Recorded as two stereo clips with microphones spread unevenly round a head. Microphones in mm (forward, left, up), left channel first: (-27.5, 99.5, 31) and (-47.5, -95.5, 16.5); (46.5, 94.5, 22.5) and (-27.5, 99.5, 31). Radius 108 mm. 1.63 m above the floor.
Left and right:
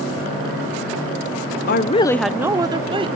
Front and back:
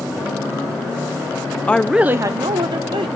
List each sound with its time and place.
1.7 s a woman speaking: 65° left, 0.6 m; by 3.1 s 160° right, 1.4 m